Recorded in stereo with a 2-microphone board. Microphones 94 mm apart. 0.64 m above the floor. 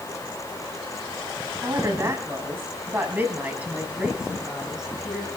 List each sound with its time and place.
1.6 s a woman speaking: 35° right (ahead or behind), 6 m; by 5.3 s centre (ahead or behind), 7 m